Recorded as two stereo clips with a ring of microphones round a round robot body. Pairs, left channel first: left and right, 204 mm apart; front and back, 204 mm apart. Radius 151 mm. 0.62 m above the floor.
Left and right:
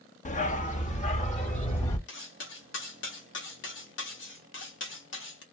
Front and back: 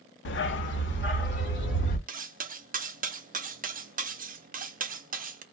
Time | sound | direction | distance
0.2 | a dog barking | 35° left | 0.6 m
2.1 | cutlery clinking | 125° left | 0.7 m